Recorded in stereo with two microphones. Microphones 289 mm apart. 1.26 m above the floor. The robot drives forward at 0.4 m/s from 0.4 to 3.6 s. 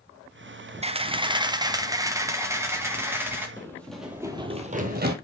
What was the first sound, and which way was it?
A camera shutter, 25° right (ahead or behind).